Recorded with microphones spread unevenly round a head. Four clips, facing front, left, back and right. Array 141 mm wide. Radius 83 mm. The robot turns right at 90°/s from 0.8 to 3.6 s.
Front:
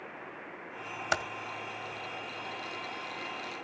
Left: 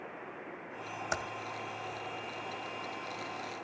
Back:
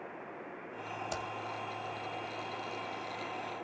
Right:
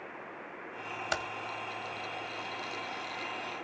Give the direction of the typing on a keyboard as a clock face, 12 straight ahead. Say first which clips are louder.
Right 2 dB, front 9 dB; 12 o'clock.